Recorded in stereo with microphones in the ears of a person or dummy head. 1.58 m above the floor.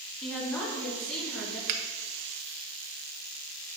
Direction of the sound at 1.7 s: 55° right (ahead or behind).